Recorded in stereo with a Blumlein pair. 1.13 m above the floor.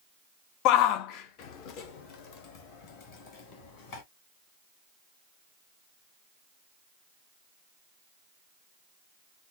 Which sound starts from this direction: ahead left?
A shout, at 0.7 s.